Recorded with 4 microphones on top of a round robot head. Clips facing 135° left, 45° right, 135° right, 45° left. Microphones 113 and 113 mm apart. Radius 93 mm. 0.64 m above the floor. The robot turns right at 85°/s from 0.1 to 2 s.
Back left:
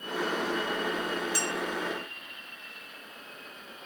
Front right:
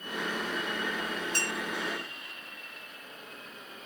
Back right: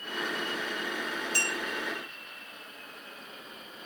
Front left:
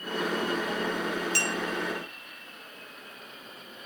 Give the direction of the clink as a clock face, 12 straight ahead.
10 o'clock.